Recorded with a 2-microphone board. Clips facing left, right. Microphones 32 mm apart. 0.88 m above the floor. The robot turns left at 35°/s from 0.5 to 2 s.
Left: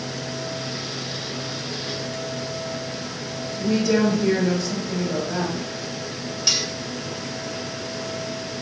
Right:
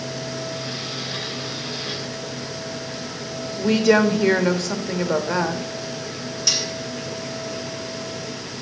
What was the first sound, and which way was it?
A woman speaking, 70° right (ahead or behind).